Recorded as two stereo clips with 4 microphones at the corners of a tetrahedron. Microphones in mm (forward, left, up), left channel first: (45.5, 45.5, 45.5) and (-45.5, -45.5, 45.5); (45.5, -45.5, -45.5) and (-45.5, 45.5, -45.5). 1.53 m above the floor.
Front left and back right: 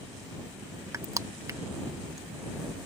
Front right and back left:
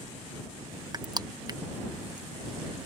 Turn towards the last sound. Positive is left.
turn(degrees=175)